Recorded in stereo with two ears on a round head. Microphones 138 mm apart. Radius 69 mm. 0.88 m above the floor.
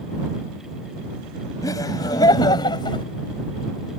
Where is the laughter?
20° left (ahead or behind); by 3.0 s 30° left (ahead or behind).